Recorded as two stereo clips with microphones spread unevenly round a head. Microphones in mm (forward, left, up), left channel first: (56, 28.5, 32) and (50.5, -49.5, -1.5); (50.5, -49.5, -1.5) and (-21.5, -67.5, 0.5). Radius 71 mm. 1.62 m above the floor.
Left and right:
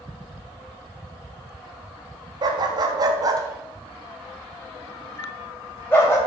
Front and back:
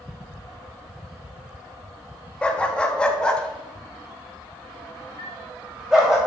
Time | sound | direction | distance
2.4 | a dog barking | 55° right | 1.3 m
5.2 | a chime | 30° left | 3.5 m